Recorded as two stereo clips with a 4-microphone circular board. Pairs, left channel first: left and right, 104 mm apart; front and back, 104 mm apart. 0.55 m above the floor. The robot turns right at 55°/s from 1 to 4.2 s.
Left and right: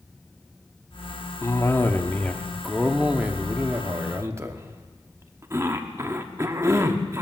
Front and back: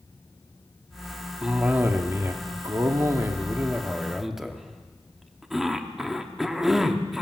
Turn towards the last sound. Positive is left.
turn(degrees=-95)